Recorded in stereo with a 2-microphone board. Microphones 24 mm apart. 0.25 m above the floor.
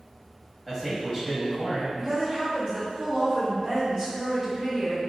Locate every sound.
0.7 s a man speaking: 15° right (ahead or behind), 1.1 m
2.0 s a woman speaking: 30° right (ahead or behind), 2.0 m